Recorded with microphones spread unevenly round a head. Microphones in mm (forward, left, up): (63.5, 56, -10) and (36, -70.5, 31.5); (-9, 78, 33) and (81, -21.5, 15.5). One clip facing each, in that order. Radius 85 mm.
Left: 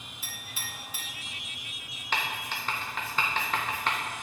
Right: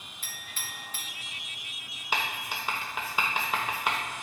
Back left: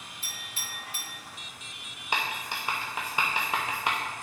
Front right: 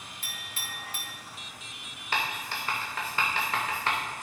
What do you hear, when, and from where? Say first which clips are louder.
0.2 s a clink: left 1 dB, front right 1 dB; 10° right, 2 m
2.1 s writing: even, even; 160° right, 0.7 m